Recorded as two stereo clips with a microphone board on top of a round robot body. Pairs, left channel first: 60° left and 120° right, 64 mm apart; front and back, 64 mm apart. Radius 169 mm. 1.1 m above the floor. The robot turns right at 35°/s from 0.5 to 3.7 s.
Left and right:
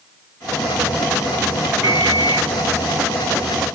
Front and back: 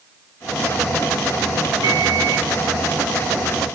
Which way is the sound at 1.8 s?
165° left.